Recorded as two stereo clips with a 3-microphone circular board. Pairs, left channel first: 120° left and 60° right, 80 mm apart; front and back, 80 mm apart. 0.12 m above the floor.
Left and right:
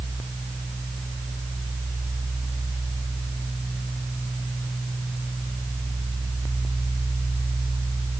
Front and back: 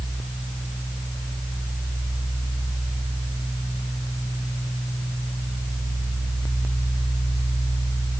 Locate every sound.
Only background noise.